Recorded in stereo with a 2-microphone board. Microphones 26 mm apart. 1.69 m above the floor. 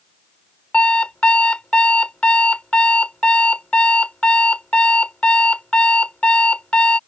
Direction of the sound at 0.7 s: 60° left (ahead or behind).